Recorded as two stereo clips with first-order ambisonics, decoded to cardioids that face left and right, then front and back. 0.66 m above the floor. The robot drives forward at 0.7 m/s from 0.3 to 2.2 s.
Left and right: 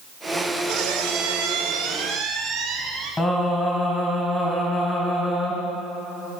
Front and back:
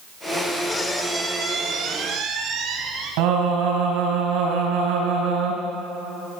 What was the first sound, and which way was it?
A squeak, 70° right.